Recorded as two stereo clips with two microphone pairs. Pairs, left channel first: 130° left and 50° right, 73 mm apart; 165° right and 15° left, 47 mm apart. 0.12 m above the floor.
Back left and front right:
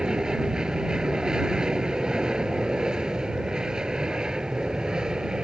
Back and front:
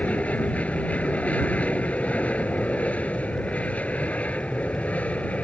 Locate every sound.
0.0 s an aircraft: 125° right